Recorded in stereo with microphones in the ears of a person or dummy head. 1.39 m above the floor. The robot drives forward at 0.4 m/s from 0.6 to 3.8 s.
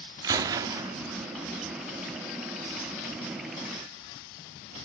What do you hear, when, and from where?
0.2 s a gunshot: 20° right (ahead or behind), 1.0 m